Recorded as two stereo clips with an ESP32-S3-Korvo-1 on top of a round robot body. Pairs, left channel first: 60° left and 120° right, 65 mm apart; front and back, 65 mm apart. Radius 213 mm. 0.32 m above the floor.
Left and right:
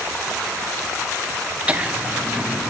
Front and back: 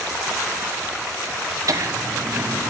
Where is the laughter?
175° left, 1.3 m; by 2.7 s 175° right, 0.9 m.